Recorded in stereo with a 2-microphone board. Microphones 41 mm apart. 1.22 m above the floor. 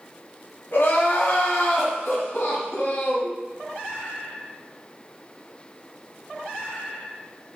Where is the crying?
60° left (ahead or behind), 2.5 m.